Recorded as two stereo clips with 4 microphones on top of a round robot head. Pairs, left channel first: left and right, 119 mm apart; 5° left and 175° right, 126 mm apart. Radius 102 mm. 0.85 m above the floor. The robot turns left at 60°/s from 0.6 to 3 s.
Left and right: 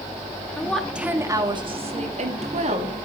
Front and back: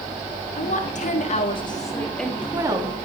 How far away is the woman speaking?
About 2 m.